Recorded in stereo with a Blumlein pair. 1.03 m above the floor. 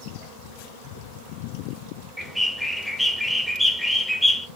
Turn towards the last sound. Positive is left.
turn(degrees=5)